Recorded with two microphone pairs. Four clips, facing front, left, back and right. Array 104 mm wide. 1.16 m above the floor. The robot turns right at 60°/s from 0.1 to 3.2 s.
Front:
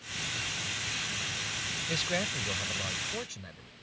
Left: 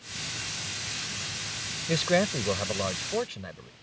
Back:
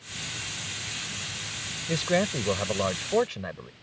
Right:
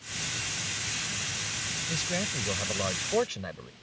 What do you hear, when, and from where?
1.9 s a man speaking: 115° left; by 3.7 s 165° right